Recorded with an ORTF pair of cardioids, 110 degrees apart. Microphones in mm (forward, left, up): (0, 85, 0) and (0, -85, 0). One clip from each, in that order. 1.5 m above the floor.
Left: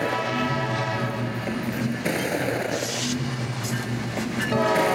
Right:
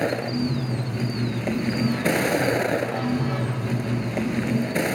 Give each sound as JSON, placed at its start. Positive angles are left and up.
{"t": 0.0, "sound": "a vehicle", "azimuth_deg": -20}